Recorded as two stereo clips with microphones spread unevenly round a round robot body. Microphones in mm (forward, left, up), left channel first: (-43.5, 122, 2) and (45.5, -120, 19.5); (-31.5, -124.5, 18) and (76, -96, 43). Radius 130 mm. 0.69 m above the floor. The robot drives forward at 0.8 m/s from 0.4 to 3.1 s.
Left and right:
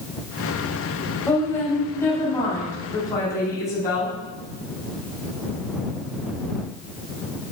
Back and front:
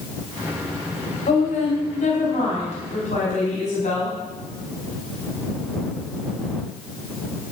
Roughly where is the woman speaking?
Behind.